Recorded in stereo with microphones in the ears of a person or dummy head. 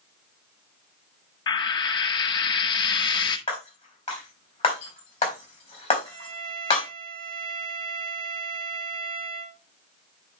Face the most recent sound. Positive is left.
turn(degrees=-45)  # may be behind; listen again after turning